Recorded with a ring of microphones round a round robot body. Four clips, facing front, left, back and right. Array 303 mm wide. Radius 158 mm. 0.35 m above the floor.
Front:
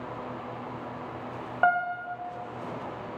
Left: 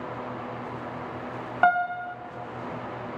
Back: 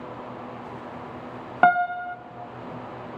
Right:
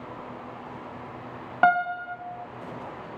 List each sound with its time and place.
1.6 s a piano: 175° right, 0.6 m